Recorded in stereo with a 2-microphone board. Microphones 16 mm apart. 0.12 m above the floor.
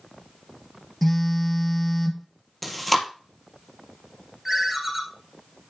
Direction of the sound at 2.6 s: 5° left (ahead or behind).